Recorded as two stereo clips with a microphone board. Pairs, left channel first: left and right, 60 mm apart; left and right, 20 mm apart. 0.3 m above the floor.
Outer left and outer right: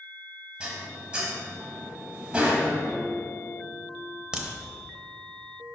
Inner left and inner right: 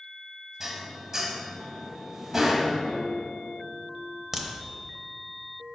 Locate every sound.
0.6 s dishes clattering: 20° right (ahead or behind), 1.2 m
2.9 s a guitar: 55° left (ahead or behind), 1.8 m
4.3 s a crack: 15° right (ahead or behind), 0.8 m